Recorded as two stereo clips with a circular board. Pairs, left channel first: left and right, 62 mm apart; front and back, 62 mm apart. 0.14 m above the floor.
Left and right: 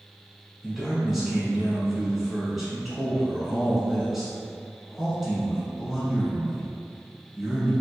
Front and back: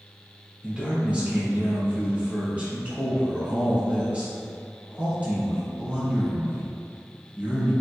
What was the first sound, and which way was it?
A man speaking, 165° right.